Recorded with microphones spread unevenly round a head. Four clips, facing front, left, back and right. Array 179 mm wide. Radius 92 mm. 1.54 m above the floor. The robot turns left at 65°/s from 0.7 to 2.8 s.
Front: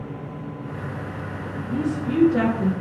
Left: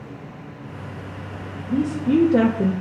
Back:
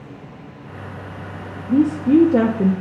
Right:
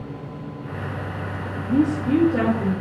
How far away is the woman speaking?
About 0.6 m.